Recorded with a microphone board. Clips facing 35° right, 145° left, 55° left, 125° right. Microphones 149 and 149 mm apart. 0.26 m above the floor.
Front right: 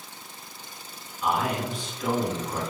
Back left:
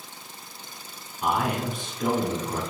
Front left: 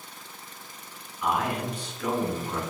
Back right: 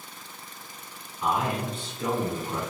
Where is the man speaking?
175° left, 2.5 m.